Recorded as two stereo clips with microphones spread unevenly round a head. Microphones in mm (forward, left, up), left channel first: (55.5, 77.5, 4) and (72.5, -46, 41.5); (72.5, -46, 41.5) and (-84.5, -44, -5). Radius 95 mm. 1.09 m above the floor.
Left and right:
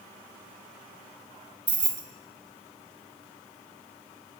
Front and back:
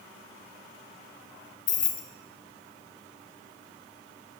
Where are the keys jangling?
35° right, 0.8 m.